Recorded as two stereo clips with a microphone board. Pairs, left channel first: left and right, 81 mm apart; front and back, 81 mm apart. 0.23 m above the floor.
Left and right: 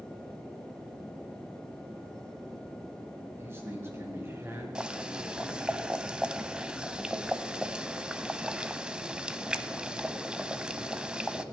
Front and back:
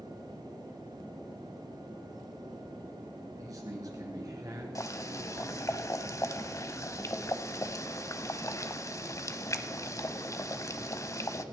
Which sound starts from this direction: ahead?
Boiling, at 4.8 s.